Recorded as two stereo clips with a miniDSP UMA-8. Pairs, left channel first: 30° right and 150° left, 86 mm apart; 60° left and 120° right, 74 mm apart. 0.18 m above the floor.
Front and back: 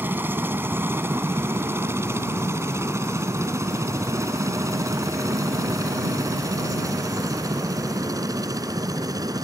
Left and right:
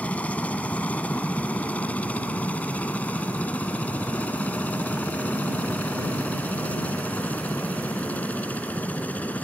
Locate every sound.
0.0 s a helicopter: 110° left; by 9.4 s 125° left